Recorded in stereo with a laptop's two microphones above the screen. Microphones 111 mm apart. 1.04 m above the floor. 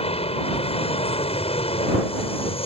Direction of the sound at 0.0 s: 65° left (ahead or behind).